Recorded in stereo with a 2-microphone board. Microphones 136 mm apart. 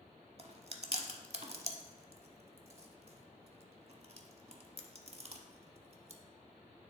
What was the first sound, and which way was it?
Chewing, 45° right (ahead or behind).